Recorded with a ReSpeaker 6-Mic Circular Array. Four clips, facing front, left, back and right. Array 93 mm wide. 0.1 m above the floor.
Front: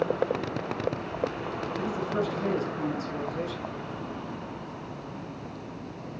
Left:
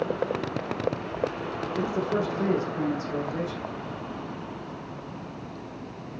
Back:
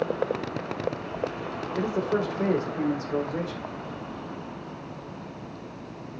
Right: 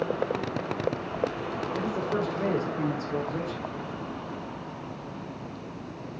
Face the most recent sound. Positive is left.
turn(degrees=160)